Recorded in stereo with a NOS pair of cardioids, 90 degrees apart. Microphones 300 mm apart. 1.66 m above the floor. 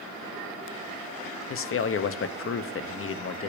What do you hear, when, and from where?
1.5 s a man speaking: 45° left, 1.1 m